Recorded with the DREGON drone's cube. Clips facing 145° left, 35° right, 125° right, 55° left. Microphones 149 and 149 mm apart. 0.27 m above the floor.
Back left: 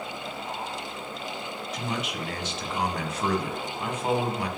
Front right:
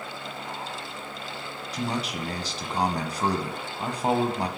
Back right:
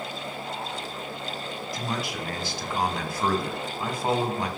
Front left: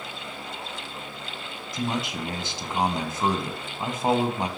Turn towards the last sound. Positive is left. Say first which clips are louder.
# front right 3 dB, front left 4 dB
turn(degrees=-5)